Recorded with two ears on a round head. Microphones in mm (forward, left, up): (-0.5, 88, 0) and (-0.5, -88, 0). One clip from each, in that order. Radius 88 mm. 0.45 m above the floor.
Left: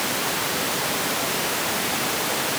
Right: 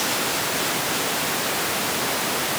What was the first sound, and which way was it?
Only background noise.